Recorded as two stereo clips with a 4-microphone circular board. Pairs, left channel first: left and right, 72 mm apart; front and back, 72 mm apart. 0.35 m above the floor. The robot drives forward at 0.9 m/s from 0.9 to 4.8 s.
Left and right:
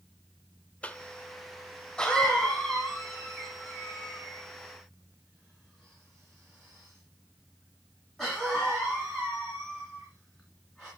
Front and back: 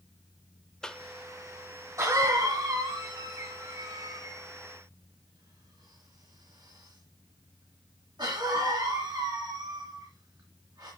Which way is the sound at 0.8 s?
65° left.